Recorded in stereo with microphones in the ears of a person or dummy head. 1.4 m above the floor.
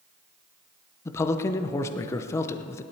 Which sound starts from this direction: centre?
A man speaking, at 1.1 s.